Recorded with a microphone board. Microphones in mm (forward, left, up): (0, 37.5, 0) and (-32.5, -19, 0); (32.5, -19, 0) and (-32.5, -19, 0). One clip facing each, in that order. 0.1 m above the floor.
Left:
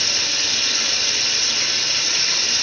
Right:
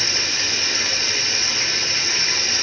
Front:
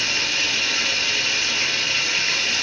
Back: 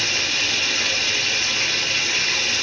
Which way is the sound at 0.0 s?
90° right.